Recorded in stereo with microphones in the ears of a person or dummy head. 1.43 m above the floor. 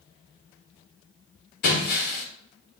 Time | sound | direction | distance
1.6 | breaking glass | 45° left (ahead or behind) | 1.5 m